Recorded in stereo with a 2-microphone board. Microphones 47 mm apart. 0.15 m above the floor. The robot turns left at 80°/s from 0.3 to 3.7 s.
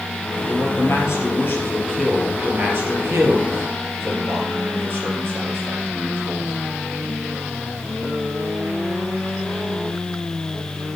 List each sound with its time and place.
0.4 s a man speaking: 140° left, 3.5 m; by 6.5 s 130° right, 3.5 m